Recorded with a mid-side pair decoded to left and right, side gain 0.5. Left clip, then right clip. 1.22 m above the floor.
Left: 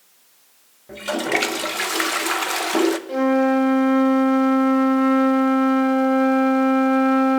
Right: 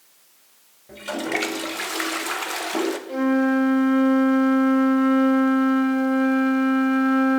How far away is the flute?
About 0.8 m.